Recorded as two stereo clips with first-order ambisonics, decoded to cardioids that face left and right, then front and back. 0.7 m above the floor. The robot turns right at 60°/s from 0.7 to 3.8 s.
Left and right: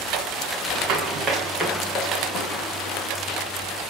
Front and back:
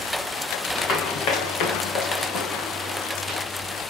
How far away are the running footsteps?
About 3.5 m.